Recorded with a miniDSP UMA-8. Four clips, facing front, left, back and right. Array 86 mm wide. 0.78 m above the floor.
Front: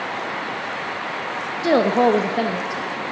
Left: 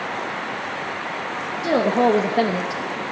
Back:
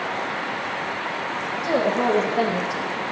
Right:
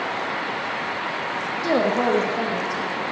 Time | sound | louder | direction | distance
1.6 | a woman speaking | left 3 dB, front 5 dB | straight ahead | 1.2 m